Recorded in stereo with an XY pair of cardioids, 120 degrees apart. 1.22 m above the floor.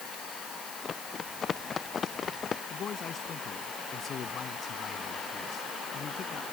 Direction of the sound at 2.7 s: 50° left.